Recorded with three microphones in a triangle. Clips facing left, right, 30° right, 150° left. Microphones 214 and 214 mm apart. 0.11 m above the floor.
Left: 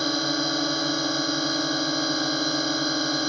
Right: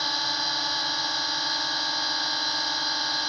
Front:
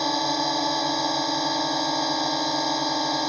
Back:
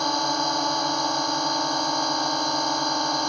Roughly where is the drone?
Ahead left.